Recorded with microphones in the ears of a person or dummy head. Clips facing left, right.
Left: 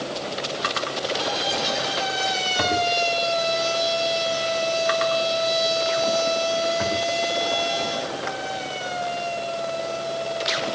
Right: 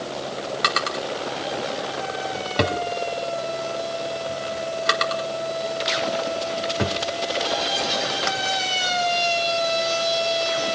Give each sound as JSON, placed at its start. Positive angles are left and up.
{"t": 0.6, "sound": "a drawer", "side_deg": -60, "distance_m": 2.5}